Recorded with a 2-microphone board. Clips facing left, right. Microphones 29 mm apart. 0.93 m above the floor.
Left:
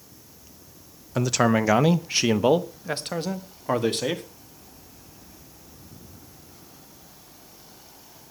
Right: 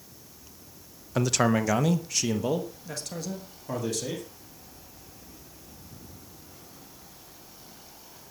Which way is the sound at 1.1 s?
Centre (ahead or behind).